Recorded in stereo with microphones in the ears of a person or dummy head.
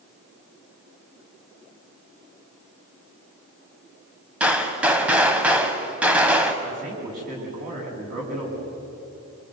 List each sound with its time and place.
4.4 s a gunshot: 10° right (ahead or behind), 2.0 m
6.6 s a man speaking: 40° right (ahead or behind), 9 m